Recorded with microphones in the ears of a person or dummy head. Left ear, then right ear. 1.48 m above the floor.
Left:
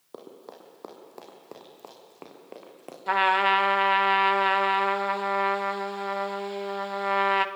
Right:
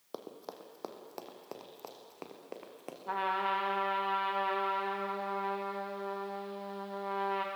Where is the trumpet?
45° left (ahead or behind), 1.0 m.